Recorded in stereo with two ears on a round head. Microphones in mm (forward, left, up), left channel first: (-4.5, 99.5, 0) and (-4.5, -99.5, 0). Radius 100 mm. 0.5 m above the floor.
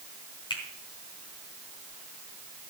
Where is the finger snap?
20° left (ahead or behind), 3.5 m.